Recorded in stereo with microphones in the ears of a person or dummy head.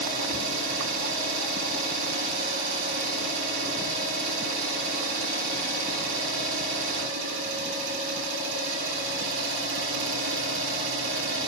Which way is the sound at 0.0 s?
80° right.